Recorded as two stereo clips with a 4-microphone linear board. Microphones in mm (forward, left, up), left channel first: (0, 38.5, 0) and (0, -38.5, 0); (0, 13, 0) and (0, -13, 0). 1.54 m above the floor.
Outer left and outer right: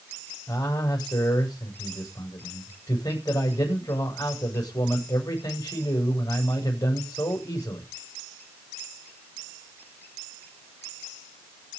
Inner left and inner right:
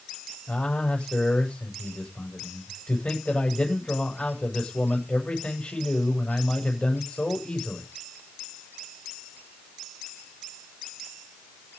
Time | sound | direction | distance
0.5 | a man speaking | 55° left (ahead or behind) | 7.5 m